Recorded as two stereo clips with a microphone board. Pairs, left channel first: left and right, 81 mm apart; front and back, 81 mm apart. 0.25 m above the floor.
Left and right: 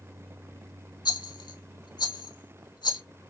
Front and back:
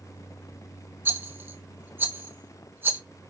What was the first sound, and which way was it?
A rattle, 115° left.